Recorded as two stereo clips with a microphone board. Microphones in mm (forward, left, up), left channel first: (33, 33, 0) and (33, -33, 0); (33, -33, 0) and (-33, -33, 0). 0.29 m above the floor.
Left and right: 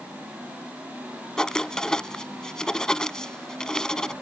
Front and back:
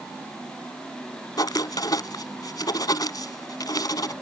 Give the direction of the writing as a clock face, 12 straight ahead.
12 o'clock.